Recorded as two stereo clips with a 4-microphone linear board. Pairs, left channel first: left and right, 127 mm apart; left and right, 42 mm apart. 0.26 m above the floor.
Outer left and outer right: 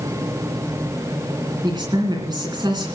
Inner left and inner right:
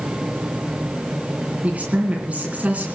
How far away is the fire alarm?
No fire alarm in this recording.